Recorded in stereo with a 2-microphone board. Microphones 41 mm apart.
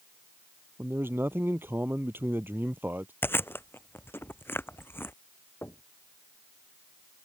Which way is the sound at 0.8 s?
65° right (ahead or behind).